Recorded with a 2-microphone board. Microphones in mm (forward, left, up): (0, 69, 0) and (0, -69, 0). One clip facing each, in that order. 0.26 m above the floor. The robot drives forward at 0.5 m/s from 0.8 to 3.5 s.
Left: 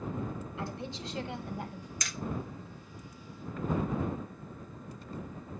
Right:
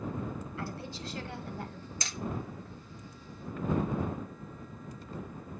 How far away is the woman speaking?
About 1.5 m.